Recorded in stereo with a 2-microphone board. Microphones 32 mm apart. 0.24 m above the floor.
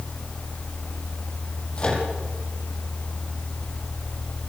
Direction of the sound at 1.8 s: 35° left (ahead or behind).